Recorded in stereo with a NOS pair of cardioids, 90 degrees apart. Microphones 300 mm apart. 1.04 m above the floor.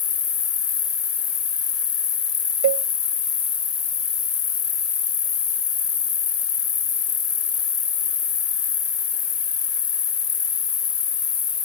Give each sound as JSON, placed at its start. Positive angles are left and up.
{"t": 0.0, "sound": "an insect", "azimuth_deg": 50}
{"t": 2.6, "sound": "a cowbell", "azimuth_deg": -70}